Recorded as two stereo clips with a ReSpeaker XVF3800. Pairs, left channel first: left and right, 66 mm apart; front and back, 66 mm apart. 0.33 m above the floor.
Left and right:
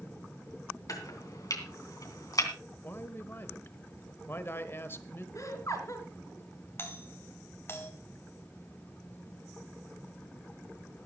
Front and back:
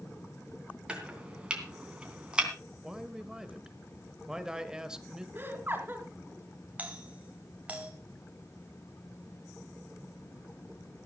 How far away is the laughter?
About 4 m.